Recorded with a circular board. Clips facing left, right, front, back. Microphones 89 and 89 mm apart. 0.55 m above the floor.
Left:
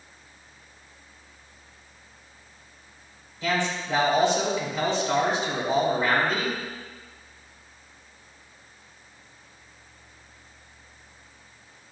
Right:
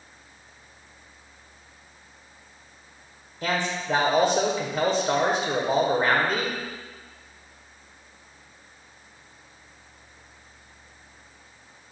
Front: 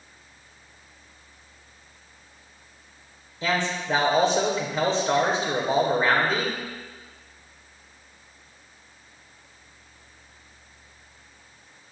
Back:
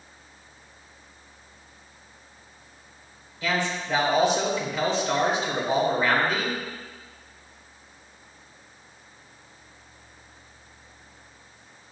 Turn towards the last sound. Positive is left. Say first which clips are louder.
# even, front 1 dB
turn(degrees=-55)